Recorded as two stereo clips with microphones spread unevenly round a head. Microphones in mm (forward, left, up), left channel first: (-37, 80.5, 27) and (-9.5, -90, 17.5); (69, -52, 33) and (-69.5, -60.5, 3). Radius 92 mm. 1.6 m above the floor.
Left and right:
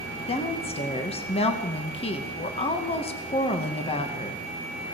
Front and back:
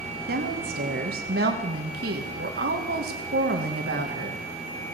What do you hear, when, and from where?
0.3 s a woman speaking: 155° left, 2 m